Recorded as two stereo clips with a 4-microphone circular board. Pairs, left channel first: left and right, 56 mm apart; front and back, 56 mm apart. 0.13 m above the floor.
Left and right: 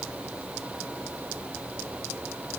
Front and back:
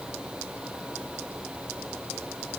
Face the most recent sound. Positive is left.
No sound to turn to.